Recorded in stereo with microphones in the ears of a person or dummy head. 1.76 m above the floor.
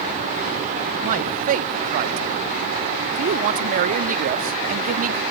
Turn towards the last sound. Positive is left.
turn(degrees=-40)  # may be behind; listen again after turning